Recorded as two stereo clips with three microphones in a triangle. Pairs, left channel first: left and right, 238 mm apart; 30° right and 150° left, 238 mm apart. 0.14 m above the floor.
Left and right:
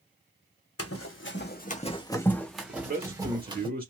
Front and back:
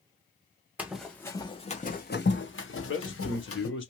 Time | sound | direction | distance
0.8 | running footsteps | 65° left | 0.8 m
2.7 | a man speaking | 45° right | 1.9 m